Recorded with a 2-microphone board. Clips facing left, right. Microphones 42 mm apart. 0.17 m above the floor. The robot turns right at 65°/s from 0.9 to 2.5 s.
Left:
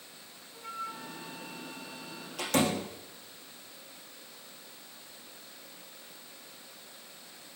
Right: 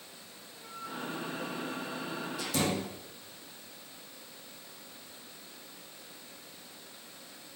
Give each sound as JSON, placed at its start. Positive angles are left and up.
{"t": 0.5, "sound": "a flute", "side_deg": 25, "distance_m": 1.5}
{"t": 2.4, "sound": "a door slam", "side_deg": 60, "distance_m": 6.5}